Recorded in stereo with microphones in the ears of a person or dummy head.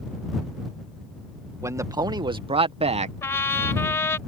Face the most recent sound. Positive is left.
turn(degrees=15)  # may be behind; listen again after turning